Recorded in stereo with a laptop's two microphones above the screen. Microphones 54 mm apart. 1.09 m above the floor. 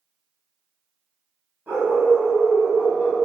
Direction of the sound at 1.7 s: 40° right (ahead or behind).